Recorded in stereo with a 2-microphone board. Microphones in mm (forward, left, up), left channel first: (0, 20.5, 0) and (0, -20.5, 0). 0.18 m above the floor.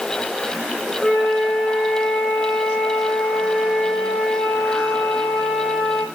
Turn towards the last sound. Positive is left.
turn(degrees=25)  # may be behind; listen again after turning